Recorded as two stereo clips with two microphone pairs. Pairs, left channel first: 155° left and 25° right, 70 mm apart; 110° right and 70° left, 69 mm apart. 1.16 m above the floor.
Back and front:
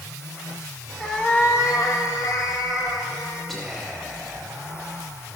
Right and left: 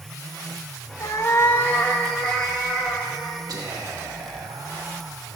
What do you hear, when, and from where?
1.0 s a cat meowing: 125° right, 0.8 m; by 3.4 s 165° left, 2.5 m
3.5 s whispering: 70° left, 1.0 m